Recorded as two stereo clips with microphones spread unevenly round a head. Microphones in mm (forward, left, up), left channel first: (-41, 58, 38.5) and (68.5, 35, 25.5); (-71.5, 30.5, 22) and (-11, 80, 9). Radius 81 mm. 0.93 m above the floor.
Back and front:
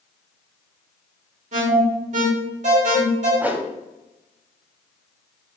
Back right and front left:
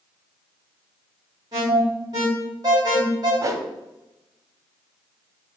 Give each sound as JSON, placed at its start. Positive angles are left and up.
{"t": 1.5, "sound": "an alarm", "azimuth_deg": -20, "distance_m": 3.0}
{"t": 3.4, "sound": "a whoosh", "azimuth_deg": 65, "distance_m": 0.9}